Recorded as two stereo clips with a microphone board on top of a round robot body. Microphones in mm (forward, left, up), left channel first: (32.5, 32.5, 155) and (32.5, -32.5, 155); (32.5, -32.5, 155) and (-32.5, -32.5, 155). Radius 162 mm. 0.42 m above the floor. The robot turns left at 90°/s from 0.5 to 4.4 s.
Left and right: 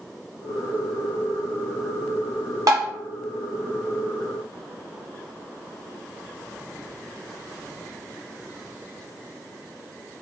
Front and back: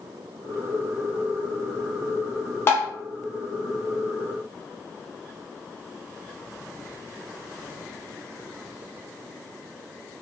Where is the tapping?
55° right, 0.6 m; by 2.9 s 75° right, 0.6 m.